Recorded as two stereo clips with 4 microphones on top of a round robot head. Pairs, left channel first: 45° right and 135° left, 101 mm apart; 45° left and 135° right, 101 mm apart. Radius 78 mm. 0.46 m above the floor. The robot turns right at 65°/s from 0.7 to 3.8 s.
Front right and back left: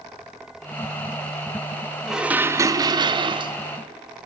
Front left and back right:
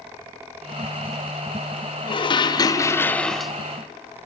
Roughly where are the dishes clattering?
Ahead left.